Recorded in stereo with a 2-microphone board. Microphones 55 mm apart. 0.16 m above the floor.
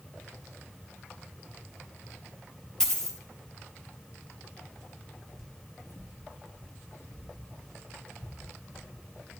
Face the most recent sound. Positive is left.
turn(degrees=75)  # may be behind; listen again after turning